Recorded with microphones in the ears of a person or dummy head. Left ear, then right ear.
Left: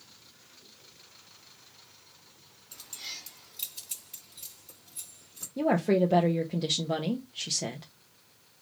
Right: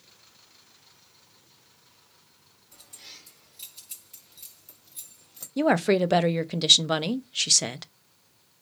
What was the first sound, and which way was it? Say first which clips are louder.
Keys jangling: left 6 dB; 25° left (ahead or behind).